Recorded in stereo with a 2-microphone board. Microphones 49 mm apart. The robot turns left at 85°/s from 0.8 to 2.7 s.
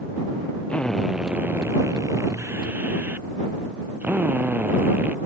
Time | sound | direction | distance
0.7 | a drill | 20° left | ?